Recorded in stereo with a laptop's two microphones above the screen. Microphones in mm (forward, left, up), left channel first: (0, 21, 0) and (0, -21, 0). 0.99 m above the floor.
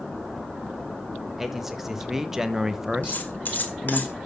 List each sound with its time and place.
1.4 s a man speaking: 5° right (ahead or behind), 1.3 m
3.0 s cutlery clinking: 45° left (ahead or behind), 2 m